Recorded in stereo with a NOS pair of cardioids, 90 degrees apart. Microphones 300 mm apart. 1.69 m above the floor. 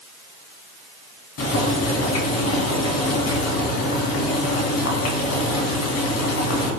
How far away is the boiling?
About 3 m.